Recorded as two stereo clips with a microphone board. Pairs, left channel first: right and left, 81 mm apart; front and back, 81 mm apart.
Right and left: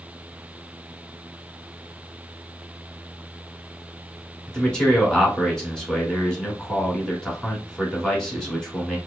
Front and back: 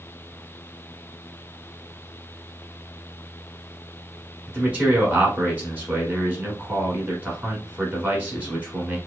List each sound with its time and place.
4.5 s a man speaking: 150° right, 1.1 m